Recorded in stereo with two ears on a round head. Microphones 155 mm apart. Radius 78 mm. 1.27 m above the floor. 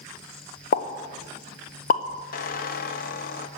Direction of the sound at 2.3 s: 55° left (ahead or behind).